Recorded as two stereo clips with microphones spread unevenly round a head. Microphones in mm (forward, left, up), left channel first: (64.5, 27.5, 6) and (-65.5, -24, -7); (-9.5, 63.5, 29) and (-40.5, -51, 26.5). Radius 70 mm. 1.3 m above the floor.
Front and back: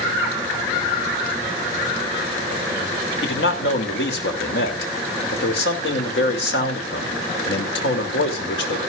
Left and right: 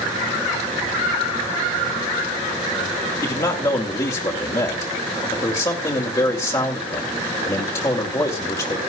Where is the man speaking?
10° left, 3.5 m.